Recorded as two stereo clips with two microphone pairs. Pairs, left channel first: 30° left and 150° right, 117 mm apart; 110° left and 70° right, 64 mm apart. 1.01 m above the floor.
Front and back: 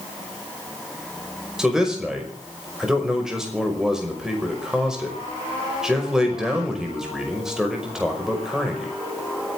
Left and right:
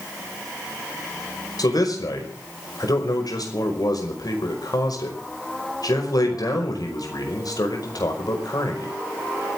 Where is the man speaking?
125° left, 5.5 m.